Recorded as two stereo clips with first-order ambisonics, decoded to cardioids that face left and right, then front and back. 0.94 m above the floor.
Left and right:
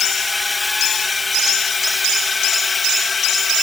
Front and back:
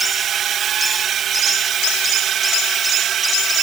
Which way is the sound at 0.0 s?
165° left.